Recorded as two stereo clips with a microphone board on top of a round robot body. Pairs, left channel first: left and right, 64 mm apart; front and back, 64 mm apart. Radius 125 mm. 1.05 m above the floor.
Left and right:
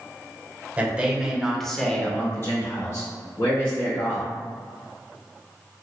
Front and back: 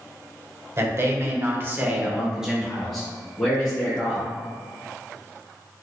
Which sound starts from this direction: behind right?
A man speaking, at 0.8 s.